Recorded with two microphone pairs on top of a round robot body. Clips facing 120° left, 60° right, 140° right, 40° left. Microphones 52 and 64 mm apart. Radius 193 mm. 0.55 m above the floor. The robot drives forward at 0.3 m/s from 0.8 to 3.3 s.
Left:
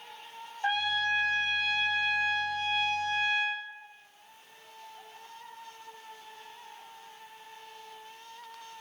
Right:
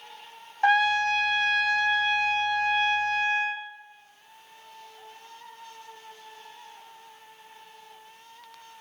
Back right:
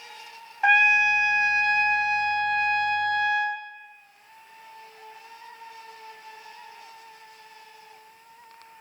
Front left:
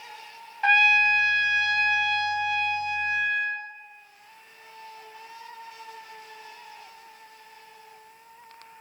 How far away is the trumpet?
About 0.9 m.